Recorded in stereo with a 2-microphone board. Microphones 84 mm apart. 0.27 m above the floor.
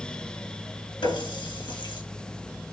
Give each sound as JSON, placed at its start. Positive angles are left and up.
{"t": 1.0, "sound": "a running tap", "side_deg": 70, "distance_m": 2.0}